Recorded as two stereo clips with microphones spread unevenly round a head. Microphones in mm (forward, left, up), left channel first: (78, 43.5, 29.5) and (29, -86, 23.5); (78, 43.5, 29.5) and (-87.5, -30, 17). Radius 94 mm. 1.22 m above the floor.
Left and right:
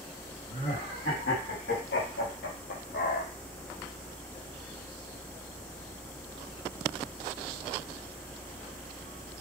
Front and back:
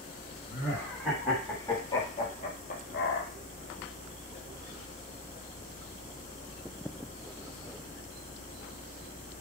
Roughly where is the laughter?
Behind left.